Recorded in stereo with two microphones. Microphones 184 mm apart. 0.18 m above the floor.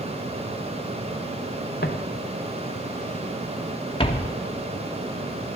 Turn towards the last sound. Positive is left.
turn(degrees=25)  # may be behind; listen again after turning